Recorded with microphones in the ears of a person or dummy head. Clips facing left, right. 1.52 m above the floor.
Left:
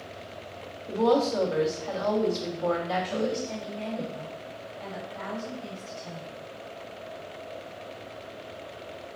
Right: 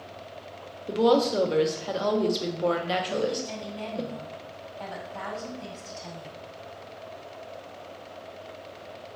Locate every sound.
0.9 s a woman speaking: 35° right (ahead or behind), 0.5 m
3.0 s a woman speaking: 80° right, 1.4 m